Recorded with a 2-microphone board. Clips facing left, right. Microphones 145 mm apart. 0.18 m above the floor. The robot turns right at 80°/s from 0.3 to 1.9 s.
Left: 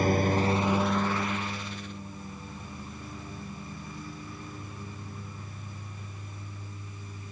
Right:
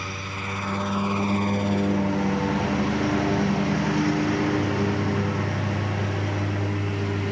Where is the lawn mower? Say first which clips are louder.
Left 10 dB; 135° left; by 7.3 s 100° right.